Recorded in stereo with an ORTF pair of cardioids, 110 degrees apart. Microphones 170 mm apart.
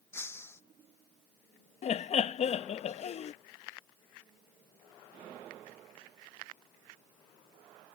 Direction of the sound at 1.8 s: 45° left.